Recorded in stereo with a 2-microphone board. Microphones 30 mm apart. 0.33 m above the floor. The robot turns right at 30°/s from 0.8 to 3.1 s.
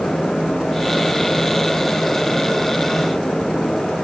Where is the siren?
I don't hear a siren.